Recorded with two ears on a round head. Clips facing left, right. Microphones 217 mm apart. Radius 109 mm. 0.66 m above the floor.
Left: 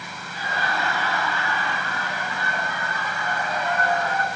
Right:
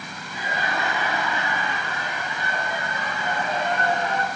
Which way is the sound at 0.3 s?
15° right (ahead or behind).